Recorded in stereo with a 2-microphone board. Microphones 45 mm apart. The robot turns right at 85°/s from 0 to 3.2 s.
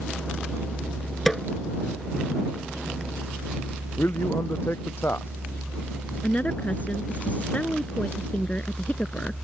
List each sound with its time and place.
1.3 s a snare drum: 5° left (ahead or behind); by 1.4 s 5° right (ahead or behind)
4.0 s a man speaking: 60° left (ahead or behind)
6.2 s a woman speaking: 35° left (ahead or behind)